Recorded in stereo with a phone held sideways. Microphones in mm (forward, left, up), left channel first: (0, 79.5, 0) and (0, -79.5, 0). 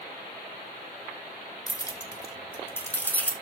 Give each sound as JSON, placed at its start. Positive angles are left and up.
{"t": 1.7, "sound": "keys jangling", "side_deg": 25, "distance_m": 1.0}